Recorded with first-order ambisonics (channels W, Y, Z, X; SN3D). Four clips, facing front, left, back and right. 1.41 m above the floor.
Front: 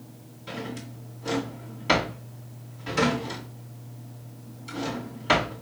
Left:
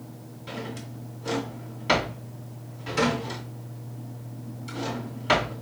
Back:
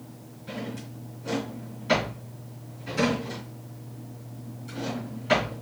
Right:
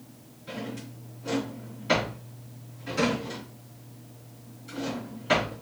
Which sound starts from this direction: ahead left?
A drawer, at 0.5 s.